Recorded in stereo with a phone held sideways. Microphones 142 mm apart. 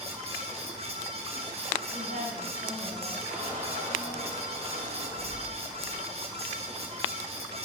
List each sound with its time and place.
0.0 s a fan: 45° right (ahead or behind), 1.4 m
1.9 s a woman speaking: 70° right (ahead or behind), 3 m
3.3 s a squeak: 60° right (ahead or behind), 3 m